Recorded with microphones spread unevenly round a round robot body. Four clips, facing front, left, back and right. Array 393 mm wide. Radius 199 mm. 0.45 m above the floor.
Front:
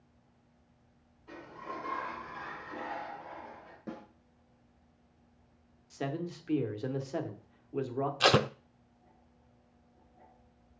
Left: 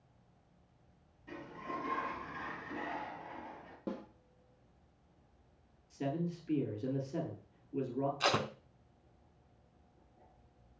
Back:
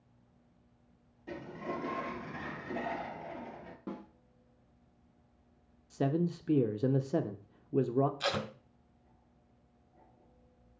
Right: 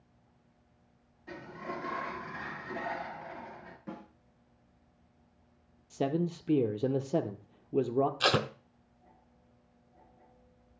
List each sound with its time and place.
1.3 s a sliding door: 165° right, 1.1 m
3.9 s a snare drum: 105° left, 2 m
5.9 s a man speaking: 125° right, 1.1 m
8.2 s tape being pulled: 20° right, 0.7 m